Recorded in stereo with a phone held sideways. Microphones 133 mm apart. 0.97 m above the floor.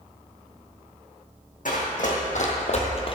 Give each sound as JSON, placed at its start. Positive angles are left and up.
{"t": 1.6, "sound": "running footsteps", "side_deg": 70, "distance_m": 3.0}